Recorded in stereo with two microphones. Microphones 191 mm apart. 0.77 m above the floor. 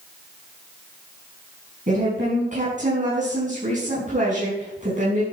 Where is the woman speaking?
40° right (ahead or behind), 6 m.